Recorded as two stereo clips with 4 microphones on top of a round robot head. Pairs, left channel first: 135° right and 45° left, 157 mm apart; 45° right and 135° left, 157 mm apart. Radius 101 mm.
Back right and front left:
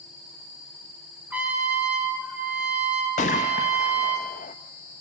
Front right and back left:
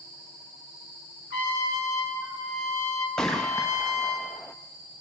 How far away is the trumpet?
About 5 m.